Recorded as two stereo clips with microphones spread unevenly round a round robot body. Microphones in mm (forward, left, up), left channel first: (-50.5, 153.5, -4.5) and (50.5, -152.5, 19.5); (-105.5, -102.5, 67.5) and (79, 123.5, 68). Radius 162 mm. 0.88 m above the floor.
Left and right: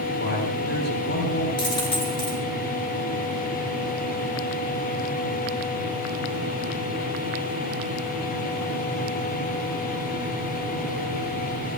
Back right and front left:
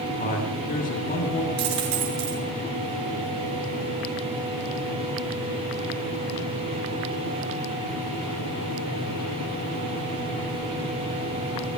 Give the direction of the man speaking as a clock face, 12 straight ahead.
6 o'clock.